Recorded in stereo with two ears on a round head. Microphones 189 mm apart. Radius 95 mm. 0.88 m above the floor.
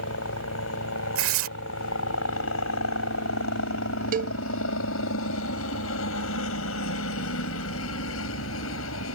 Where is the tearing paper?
65° right (ahead or behind).